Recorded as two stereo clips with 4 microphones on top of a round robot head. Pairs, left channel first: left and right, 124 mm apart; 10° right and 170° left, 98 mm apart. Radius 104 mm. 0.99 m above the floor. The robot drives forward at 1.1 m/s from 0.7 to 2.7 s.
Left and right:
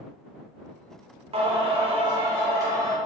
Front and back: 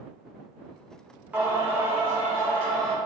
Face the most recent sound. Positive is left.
turn(degrees=-150)